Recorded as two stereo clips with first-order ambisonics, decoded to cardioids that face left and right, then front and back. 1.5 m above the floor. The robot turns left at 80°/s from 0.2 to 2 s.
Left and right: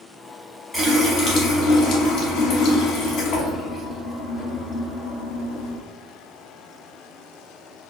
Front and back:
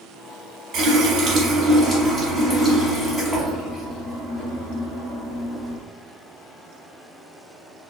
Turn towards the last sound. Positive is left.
turn(degrees=80)